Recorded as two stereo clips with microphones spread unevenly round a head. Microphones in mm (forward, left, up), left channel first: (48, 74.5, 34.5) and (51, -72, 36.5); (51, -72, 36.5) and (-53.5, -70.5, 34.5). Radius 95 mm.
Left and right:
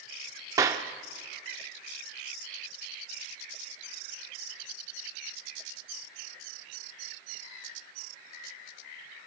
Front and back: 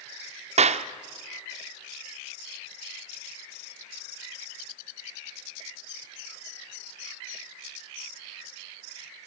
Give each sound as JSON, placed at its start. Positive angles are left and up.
{"t": 0.6, "sound": "a clap", "azimuth_deg": -160, "distance_m": 0.7}